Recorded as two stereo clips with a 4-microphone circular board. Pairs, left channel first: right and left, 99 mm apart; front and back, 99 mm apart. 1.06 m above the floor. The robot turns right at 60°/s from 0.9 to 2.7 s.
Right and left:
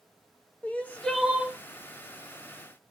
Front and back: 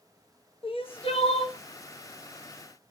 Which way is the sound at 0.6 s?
15° right.